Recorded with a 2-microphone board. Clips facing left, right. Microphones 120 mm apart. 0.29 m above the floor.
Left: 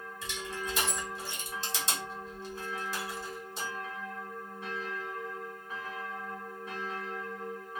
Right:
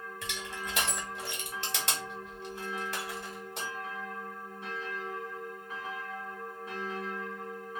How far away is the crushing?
About 1.5 m.